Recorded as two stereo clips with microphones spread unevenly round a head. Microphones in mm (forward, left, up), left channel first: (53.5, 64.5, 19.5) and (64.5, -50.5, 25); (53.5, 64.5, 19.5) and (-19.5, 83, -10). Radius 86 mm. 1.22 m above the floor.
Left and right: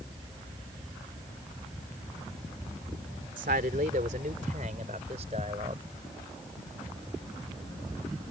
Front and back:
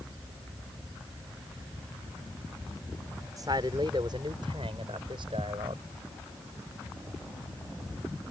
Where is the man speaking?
125° right; by 5.8 s 140° right.